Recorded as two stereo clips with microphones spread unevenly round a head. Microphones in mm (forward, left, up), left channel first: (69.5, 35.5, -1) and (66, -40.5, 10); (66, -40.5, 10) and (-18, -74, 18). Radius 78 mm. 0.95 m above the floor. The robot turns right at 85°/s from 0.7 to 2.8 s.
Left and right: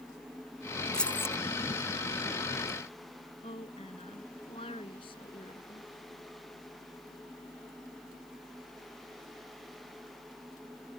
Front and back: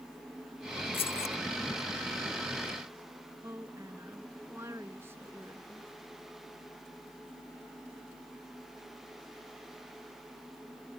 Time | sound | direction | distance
0.9 | keys jangling | 5° left | ?
3.4 | a woman speaking | 125° left | ?